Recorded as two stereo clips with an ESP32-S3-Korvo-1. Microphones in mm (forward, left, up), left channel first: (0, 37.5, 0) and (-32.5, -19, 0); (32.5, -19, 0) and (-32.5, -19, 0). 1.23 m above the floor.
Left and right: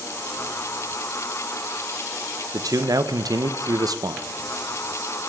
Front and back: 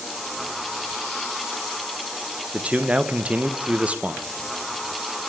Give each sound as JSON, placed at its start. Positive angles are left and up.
{"t": 2.5, "sound": "a man speaking", "azimuth_deg": -110, "distance_m": 0.7}